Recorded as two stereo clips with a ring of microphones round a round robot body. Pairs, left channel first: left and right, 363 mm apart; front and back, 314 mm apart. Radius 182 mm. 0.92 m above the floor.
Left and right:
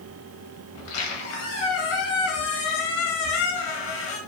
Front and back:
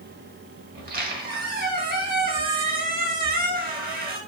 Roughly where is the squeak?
Behind left.